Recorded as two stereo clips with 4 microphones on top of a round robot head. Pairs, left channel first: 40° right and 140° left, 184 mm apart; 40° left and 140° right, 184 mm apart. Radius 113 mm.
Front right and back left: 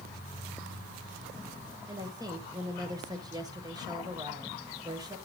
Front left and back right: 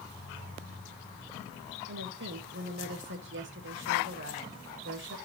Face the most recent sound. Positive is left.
turn(degrees=-150)